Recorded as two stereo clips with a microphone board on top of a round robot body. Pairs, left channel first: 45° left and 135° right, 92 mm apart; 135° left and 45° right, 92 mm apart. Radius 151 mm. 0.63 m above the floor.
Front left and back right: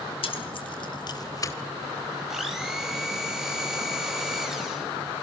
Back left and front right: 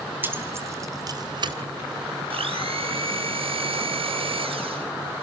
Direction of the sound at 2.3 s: 50° right.